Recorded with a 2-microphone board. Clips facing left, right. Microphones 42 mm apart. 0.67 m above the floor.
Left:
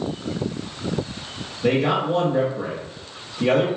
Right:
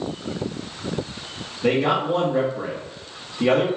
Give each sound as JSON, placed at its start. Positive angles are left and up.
{"t": 1.6, "sound": "a man speaking", "side_deg": -20, "distance_m": 1.3}